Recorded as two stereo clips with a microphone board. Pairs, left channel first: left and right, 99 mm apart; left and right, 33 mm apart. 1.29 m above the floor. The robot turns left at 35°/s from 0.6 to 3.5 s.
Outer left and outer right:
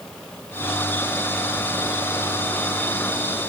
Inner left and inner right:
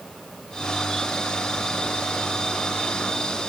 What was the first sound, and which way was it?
Only background noise.